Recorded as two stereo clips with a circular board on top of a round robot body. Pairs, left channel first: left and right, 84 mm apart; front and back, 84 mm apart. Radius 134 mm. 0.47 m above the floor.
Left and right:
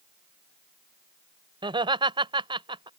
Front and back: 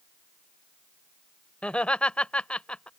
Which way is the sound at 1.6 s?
80° right.